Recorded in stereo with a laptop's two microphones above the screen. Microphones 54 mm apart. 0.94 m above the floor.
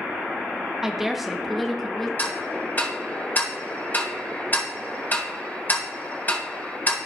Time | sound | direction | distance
0.8 | a woman speaking | 5° right (ahead or behind) | 0.9 m
2.2 | ticking | 35° left (ahead or behind) | 2.0 m